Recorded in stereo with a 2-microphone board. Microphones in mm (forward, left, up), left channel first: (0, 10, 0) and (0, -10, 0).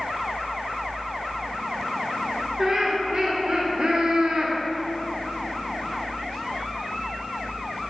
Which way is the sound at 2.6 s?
25° right (ahead or behind).